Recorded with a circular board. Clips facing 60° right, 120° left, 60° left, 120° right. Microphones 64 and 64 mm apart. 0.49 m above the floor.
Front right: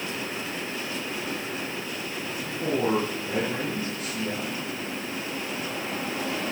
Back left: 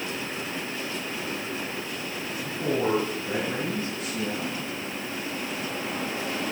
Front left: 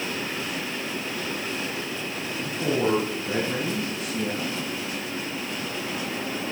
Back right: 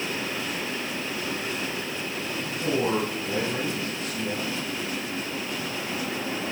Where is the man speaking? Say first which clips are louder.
Even, front left 2 dB; 55° left, 5 m; by 4.6 s 70° left, 5.5 m.